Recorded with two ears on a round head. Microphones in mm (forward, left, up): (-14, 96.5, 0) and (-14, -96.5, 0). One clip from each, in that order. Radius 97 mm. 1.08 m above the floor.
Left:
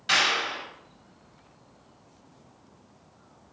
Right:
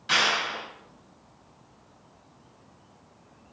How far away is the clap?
About 5.5 m.